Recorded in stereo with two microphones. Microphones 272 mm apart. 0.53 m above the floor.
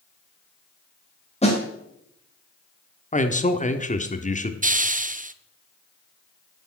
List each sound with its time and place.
1.4 s a snare drum: 25° left (ahead or behind), 3 m
3.1 s a man speaking: 25° left (ahead or behind), 1.1 m
4.6 s a hiss: 30° right (ahead or behind), 0.5 m